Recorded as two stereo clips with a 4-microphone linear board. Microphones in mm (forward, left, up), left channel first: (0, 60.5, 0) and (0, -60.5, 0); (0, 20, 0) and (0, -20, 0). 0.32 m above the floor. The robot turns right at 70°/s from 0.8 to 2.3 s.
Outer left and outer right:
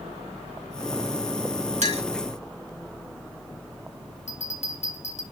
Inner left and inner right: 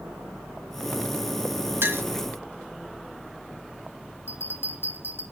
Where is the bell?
70° left (ahead or behind), 2 m.